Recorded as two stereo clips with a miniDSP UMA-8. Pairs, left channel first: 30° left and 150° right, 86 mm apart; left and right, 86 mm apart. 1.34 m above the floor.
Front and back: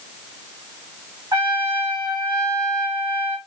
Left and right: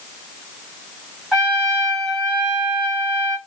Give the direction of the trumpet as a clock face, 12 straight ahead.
6 o'clock.